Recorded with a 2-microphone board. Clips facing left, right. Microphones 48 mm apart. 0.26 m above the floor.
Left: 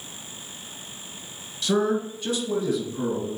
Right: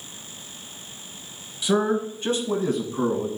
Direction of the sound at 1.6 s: 15° right (ahead or behind).